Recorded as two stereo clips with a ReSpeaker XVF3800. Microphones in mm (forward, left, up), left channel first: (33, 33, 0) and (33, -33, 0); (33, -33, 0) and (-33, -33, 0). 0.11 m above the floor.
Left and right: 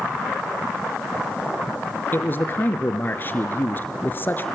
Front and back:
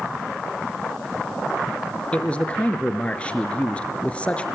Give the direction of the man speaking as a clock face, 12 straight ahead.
10 o'clock.